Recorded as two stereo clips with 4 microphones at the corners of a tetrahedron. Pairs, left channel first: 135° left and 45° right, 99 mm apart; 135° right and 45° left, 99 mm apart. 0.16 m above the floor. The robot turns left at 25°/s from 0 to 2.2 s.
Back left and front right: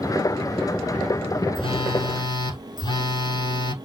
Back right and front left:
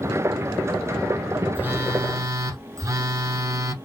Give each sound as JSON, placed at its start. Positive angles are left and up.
{"t": 1.6, "sound": "a phone buzzing", "azimuth_deg": 115, "distance_m": 1.3}